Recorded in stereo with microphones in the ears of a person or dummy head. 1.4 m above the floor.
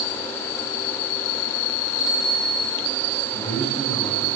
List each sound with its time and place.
2.0 s a bicycle bell: centre (ahead or behind), 5.5 m
3.3 s a man speaking: 35° left (ahead or behind), 6 m